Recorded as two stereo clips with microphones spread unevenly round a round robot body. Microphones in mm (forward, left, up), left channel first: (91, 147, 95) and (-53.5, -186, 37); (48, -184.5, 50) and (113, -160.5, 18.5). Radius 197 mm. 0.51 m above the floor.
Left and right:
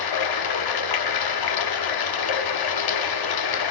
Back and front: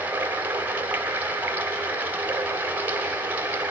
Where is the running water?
50° left, 1.2 m.